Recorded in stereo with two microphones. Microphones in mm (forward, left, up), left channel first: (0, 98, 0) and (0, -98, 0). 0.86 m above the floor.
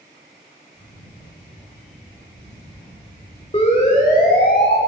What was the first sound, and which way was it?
A camera shutter, 35° left (ahead or behind).